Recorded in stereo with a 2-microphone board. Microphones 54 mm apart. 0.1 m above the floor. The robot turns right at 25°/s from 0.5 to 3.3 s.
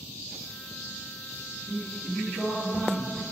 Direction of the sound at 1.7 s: 130° right.